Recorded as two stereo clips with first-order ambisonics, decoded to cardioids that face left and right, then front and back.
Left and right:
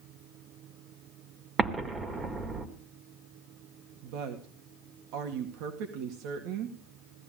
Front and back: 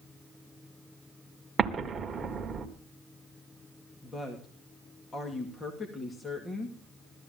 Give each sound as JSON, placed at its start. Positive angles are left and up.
{"t": 1.6, "sound": "an explosion", "azimuth_deg": -130, "distance_m": 1.3}
{"t": 4.0, "sound": "a woman speaking", "azimuth_deg": -75, "distance_m": 2.0}